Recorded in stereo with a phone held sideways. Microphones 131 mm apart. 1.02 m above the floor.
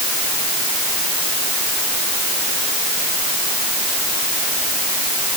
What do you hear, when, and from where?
Only background noise.